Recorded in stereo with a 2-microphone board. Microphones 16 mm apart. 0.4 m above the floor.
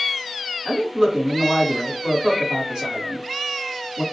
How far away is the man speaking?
About 1.8 m.